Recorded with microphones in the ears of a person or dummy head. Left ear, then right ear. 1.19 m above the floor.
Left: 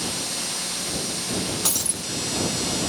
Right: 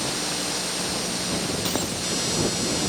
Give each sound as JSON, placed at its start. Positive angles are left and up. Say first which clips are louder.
{"t": 1.6, "sound": "breaking glass", "louder": "even", "side_deg": 35}